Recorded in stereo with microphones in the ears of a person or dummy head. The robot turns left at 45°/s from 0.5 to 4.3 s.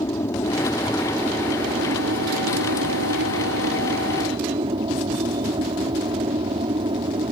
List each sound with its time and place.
0.0 s an aircraft: 20° left; by 7.3 s 155° right